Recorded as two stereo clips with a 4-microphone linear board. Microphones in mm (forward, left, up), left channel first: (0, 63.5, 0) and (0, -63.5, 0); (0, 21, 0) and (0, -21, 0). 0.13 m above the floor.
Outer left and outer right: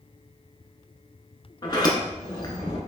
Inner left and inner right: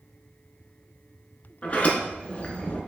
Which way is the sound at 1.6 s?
35° left (ahead or behind).